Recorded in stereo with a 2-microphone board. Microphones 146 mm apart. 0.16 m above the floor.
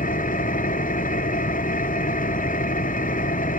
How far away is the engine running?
About 0.8 m.